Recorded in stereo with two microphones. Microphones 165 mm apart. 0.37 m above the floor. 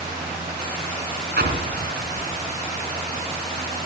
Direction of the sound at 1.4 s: 75° right (ahead or behind).